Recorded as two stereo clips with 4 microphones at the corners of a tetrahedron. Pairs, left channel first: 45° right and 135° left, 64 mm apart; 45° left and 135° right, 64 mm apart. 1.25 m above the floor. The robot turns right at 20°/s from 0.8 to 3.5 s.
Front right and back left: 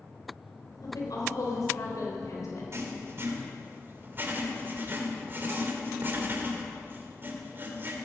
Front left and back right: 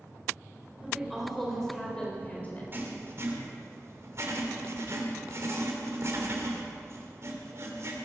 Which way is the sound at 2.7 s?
170° left.